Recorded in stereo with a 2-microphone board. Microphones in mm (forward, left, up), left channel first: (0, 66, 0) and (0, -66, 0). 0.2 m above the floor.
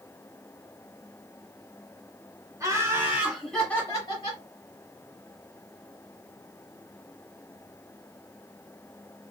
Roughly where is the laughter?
Right.